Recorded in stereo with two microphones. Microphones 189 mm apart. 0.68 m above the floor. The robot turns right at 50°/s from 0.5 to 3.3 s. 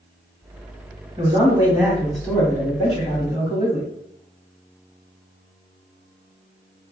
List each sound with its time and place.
1.2 s a man speaking: 50° right, 1.6 m; by 3.9 s 60° left, 1.6 m